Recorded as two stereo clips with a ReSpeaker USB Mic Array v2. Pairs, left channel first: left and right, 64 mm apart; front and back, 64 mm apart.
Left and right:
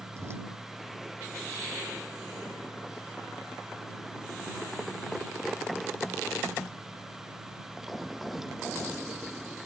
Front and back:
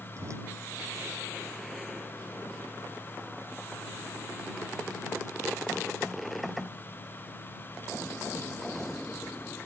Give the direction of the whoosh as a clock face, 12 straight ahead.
5 o'clock.